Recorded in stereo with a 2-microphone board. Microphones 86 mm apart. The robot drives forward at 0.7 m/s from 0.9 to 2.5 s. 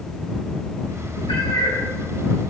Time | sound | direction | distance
1.3 | a cat meowing | 75° left (ahead or behind) | 3.5 m